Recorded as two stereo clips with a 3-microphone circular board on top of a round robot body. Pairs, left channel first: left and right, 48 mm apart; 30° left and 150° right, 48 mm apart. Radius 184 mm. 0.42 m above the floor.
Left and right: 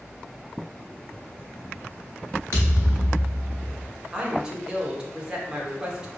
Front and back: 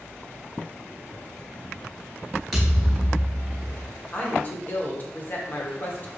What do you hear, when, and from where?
2.5 s a thud: 130° left, 0.8 m
4.1 s a woman speaking: 15° right, 1.6 m